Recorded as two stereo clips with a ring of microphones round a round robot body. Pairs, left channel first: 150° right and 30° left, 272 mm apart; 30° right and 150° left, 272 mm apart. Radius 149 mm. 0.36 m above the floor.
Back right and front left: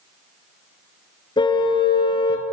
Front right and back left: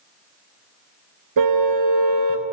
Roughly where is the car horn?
Behind left.